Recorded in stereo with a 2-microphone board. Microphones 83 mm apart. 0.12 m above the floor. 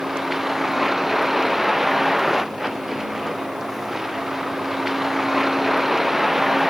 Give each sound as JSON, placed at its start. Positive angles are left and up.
{"t": 0.0, "sound": "a vehicle", "side_deg": -5}